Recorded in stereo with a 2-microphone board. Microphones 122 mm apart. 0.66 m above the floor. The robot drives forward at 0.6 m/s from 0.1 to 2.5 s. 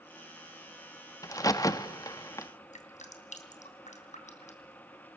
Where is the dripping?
80° left, 3 m.